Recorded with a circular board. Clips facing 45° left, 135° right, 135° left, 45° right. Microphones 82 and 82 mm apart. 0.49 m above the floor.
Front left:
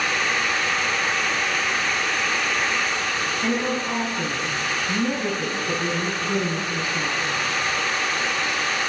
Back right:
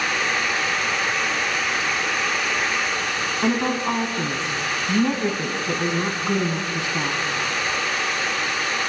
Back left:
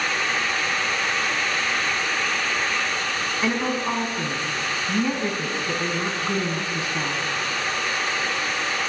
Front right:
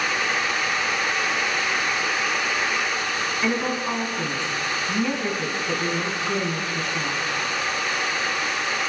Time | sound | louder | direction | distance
3.4 | a woman speaking | back right 4 dB, back left 1 dB | 150° right | 5 m